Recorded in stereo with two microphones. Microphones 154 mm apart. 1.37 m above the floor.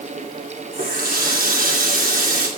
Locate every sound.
0.7 s a running tap: 75° right (ahead or behind), 2.5 m